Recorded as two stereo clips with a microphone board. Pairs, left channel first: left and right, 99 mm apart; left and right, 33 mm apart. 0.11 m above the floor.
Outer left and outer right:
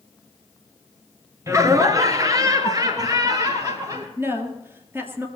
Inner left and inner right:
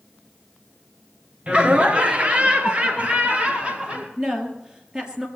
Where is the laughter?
30° right (ahead or behind), 1.5 m; by 4.1 s 35° right (ahead or behind), 3 m.